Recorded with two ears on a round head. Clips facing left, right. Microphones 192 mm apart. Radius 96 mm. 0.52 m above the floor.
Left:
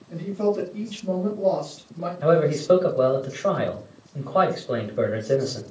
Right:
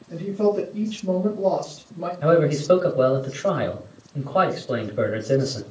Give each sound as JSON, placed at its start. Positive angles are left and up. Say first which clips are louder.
{"t": 0.1, "sound": "a woman speaking", "louder": "right 2 dB", "side_deg": -5, "distance_m": 3.5}
{"t": 2.2, "sound": "a man speaking", "louder": "right 1 dB", "side_deg": -5, "distance_m": 2.0}